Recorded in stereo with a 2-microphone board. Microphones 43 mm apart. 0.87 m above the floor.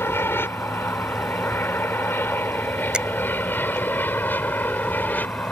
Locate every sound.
0.0 s an aircraft: 65° left (ahead or behind); by 5.5 s 40° left (ahead or behind)
2.9 s a finger snap: 20° right (ahead or behind)